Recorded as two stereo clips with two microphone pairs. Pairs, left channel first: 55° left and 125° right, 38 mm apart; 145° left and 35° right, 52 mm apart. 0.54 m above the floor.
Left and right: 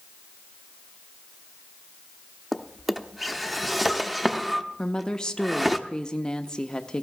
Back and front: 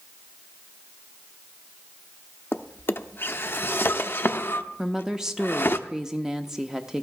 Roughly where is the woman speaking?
Ahead left.